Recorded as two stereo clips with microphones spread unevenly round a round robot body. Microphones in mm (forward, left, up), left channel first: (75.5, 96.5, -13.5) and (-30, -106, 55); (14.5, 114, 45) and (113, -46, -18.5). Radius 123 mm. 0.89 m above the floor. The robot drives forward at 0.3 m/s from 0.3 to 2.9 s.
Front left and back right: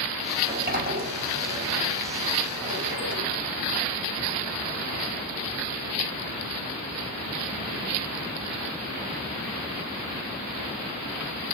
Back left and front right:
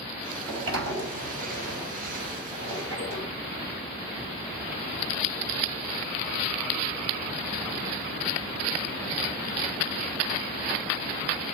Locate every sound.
0.4 s a sliding door: 65° right, 4 m; by 3.3 s 75° right, 3.5 m